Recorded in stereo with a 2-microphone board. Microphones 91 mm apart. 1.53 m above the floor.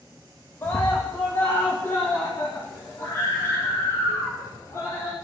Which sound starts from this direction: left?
A scream, at 0.6 s.